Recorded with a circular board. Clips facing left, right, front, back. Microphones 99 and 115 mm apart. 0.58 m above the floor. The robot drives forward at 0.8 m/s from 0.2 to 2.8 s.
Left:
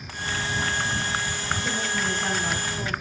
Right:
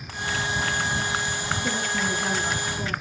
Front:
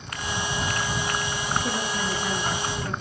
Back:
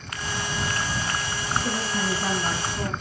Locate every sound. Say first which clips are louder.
1.6 s a woman speaking: right 1 dB, back 1 dB; 150° left, 4 m; by 2.9 s 155° left, 5 m